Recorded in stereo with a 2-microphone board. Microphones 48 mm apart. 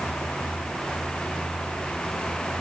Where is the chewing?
No chewing in this recording.